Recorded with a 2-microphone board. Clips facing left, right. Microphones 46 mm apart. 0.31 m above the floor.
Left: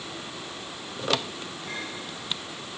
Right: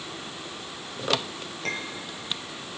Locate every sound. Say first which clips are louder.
1.6 s a clink: right 5 dB; 80° right, 4 m